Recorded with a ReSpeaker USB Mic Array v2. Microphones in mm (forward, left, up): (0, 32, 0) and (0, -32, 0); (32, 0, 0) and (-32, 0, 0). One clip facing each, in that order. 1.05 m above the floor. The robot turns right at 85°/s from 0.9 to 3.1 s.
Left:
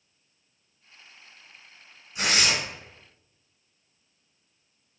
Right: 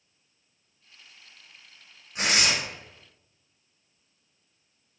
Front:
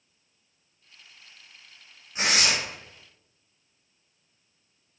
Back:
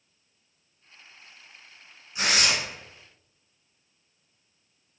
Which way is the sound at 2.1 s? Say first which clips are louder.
Even, even; 50° right.